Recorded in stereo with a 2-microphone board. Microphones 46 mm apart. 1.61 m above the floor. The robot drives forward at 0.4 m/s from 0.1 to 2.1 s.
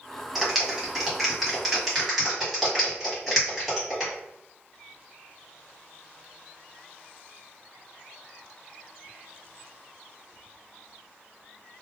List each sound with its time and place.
0.3 s a clap: 5° right (ahead or behind), 0.9 m; by 4.1 s centre (ahead or behind), 1.5 m